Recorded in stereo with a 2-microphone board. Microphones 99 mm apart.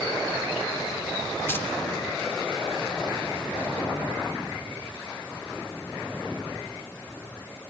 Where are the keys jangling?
25° left (ahead or behind), 2.5 m.